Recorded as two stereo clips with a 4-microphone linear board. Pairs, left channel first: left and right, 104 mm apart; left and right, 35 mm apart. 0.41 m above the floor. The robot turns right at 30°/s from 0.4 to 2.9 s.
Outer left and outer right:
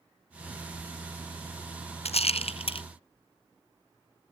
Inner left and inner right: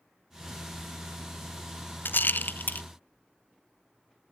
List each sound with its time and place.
2.0 s a rattle: 80° left, 0.6 m; by 2.8 s 60° left (ahead or behind), 0.6 m